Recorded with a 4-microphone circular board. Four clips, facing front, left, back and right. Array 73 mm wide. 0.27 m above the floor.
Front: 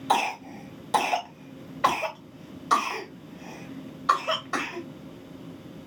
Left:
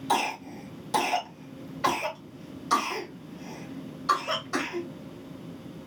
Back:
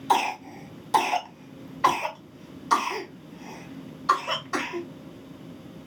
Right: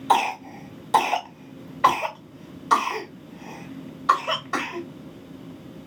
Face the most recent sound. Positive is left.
turn(degrees=-50)